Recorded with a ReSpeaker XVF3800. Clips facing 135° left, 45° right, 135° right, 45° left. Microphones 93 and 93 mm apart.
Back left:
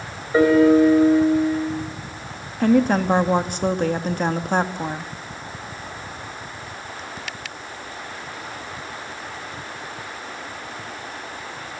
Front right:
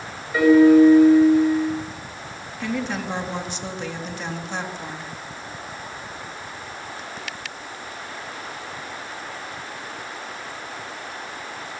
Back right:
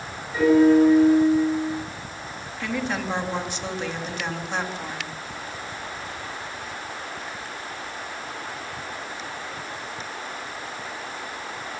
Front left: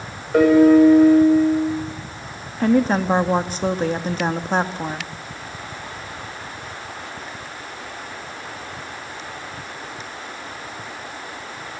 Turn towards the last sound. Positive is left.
turn(degrees=95)